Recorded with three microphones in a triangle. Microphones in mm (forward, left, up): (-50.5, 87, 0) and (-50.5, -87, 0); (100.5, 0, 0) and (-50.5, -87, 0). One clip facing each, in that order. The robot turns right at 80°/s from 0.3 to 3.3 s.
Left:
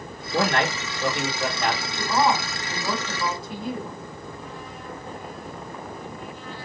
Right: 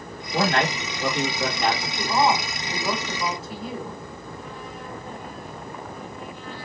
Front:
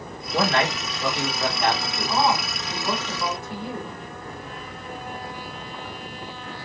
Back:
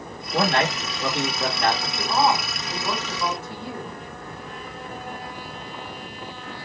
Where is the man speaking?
155° right, 1.7 m; by 1.9 s 30° right, 1.7 m.